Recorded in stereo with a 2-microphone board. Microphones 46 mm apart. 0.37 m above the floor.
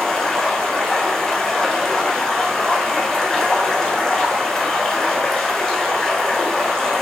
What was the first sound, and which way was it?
Running water, 10° left (ahead or behind).